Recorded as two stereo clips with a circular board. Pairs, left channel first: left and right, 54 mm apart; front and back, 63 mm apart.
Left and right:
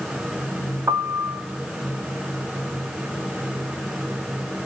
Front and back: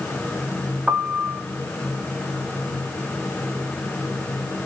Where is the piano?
105° right, 0.5 m.